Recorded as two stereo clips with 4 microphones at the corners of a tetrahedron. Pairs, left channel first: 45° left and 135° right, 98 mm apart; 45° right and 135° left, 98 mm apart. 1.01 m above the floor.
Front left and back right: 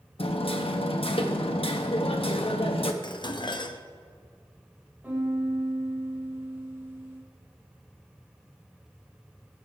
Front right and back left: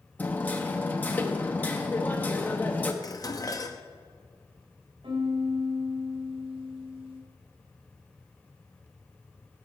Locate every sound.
0.2 s hammering: 25° left, 0.9 m
3.0 s dishes clattering: 5° left, 0.7 m
5.0 s a piano: 155° left, 2.5 m